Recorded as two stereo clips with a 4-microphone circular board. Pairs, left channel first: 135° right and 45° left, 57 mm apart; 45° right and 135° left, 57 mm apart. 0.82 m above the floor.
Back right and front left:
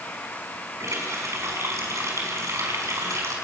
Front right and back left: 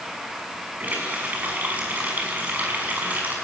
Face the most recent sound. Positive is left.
turn(degrees=75)